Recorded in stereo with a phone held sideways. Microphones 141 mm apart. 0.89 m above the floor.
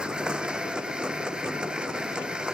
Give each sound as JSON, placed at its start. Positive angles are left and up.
{"t": 0.0, "sound": "a machine running", "side_deg": -5}